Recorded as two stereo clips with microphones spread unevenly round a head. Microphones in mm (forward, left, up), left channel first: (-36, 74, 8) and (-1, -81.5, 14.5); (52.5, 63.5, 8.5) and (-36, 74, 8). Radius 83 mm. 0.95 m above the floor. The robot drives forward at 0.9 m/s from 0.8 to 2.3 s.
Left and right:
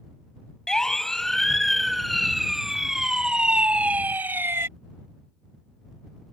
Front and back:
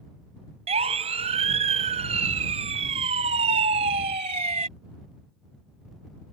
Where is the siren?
170° right; by 4.7 s 155° right.